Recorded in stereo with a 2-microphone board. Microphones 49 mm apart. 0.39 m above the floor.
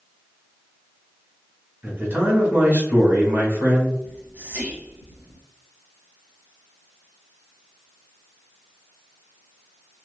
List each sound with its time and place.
1.8 s a man speaking: 40° right (ahead or behind), 1.2 m
4.0 s whispering: 40° right (ahead or behind), 1.1 m